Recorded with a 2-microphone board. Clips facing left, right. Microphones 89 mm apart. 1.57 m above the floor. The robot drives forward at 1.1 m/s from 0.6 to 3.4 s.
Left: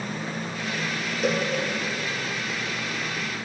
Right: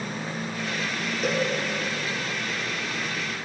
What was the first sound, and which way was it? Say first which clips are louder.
A cowbell: left 1 dB; centre (ahead or behind).